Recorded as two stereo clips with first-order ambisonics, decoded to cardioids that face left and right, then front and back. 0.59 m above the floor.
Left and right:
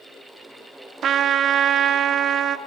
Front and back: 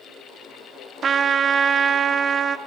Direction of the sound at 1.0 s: 130° right.